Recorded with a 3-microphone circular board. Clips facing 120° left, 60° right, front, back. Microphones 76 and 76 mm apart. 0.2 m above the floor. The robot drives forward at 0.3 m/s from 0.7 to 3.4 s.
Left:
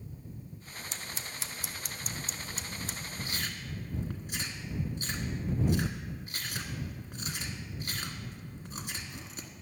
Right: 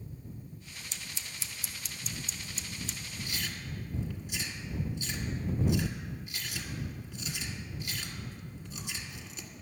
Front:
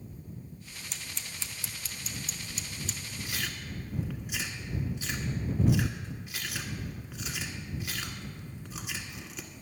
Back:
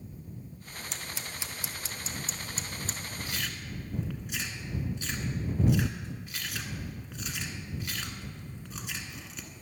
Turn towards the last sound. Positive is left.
turn(degrees=85)